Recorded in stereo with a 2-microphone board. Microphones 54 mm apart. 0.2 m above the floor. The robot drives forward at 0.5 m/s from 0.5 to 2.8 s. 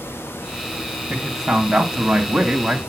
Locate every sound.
1.1 s a man speaking: 10° right (ahead or behind), 1.1 m